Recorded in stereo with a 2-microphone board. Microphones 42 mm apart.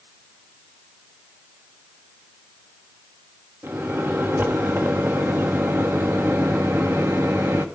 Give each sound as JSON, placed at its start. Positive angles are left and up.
{"t": 3.6, "sound": "a microwave", "side_deg": -70, "distance_m": 2.5}